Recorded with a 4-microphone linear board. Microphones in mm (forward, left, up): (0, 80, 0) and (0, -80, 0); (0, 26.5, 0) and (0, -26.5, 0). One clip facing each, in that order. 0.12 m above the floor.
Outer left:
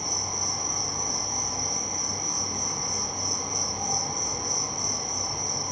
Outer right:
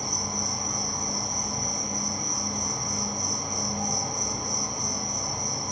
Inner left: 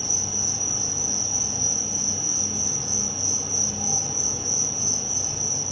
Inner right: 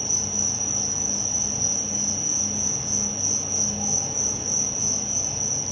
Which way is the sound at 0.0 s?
30° right (ahead or behind).